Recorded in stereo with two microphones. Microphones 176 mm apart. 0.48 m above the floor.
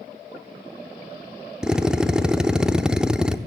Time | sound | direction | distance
1.6 | a drill | 5° right (ahead or behind) | 0.9 m